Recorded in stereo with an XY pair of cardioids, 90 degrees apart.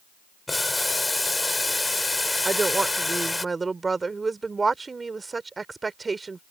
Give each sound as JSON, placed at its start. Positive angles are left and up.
{"t": 0.5, "sound": "boiling", "azimuth_deg": 15}
{"t": 2.5, "sound": "a woman speaking", "azimuth_deg": -30}